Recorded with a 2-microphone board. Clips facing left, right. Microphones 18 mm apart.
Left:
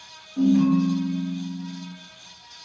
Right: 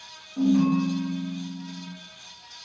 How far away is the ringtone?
About 1.1 m.